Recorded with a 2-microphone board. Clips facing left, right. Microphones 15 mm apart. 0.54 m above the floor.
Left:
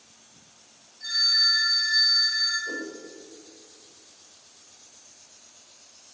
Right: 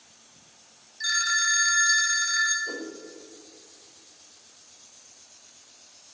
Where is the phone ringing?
80° right, 2 m.